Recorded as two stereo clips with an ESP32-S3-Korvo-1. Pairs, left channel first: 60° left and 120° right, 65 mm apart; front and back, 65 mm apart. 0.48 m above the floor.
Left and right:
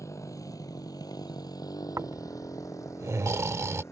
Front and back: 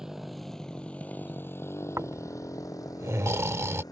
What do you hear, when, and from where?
0.0 s a motorcycle: 95° left; by 3.9 s 15° left
2.0 s snoring: 150° right